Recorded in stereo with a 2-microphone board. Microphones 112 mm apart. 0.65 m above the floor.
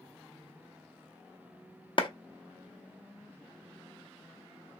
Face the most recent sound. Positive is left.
turn(degrees=45)  # may be behind; listen again after turning